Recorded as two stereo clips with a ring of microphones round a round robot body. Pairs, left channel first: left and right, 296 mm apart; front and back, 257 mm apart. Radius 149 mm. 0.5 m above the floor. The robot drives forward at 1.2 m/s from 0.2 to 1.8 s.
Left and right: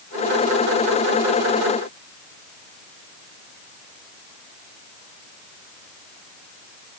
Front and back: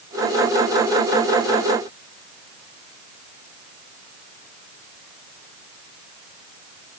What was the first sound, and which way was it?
Only background noise.